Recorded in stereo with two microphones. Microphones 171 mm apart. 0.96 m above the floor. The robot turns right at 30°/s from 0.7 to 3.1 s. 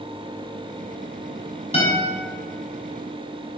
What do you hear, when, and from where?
1.7 s a guitar: 35° left (ahead or behind), 0.9 m; by 2.1 s 25° left (ahead or behind), 0.9 m